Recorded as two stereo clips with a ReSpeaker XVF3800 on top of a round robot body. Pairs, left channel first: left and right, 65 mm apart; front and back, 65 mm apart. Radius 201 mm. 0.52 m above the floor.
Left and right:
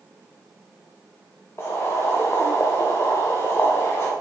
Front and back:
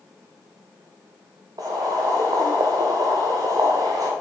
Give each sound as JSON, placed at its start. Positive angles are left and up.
{"t": 1.6, "sound": "boiling", "azimuth_deg": 145, "distance_m": 1.0}